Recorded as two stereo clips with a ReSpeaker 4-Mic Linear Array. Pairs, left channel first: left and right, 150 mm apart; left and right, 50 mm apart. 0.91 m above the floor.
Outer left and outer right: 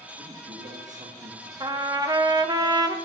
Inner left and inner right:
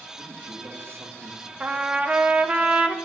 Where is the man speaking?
55° right (ahead or behind), 1.6 m.